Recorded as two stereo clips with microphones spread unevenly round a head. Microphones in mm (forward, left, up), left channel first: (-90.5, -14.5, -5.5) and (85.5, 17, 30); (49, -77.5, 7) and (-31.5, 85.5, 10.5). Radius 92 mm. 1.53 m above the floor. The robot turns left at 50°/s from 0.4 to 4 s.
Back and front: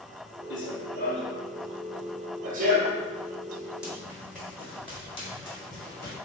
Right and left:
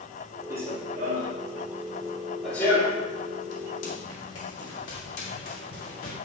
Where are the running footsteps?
170° right, 2.5 m; by 6.2 s 90° right, 6 m.